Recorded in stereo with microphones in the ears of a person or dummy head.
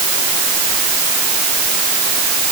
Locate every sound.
Only background noise.